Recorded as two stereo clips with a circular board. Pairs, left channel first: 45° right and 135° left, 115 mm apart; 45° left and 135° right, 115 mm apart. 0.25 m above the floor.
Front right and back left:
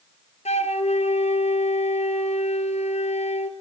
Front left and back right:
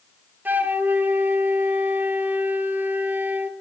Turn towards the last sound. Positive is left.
turn(degrees=-60)